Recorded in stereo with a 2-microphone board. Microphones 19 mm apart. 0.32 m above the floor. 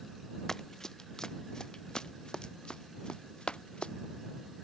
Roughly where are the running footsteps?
Left.